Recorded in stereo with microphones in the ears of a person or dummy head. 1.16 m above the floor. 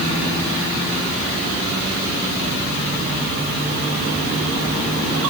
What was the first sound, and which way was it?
Only background noise.